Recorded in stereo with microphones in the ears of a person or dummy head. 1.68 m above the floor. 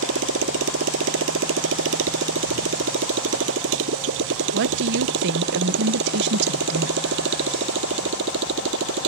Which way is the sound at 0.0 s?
75° right (ahead or behind).